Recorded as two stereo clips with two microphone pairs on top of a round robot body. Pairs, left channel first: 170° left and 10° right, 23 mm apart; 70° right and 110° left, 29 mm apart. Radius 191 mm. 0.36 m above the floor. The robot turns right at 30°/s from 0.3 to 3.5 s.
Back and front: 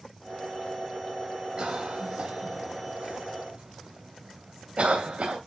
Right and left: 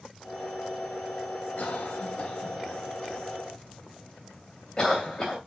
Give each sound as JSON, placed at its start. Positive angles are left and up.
{"t": 1.6, "sound": "a cough", "azimuth_deg": -50, "distance_m": 2.5}